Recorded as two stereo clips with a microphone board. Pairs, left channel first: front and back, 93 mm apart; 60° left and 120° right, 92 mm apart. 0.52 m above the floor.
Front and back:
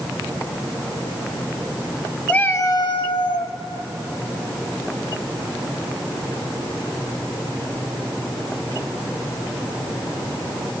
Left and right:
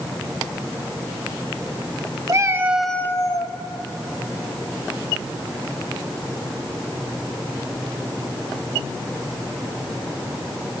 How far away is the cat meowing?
About 1.0 m.